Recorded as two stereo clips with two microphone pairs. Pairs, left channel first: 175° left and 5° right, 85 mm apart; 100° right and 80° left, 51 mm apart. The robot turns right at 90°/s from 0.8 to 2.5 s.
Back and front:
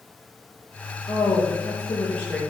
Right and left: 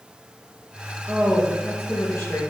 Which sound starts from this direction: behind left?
A woman speaking, at 1.1 s.